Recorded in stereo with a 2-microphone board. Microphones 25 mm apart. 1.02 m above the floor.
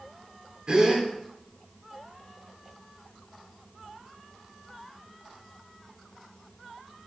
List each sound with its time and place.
0.7 s a gasp: 40° right (ahead or behind), 1.9 m